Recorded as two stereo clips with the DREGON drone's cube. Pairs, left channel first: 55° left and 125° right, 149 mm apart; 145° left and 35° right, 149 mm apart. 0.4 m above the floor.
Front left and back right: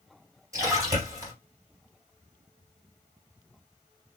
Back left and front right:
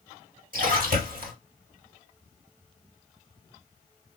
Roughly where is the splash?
Ahead right.